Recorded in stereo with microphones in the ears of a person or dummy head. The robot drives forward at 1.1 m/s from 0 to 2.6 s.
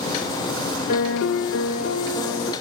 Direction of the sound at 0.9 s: 45° left (ahead or behind).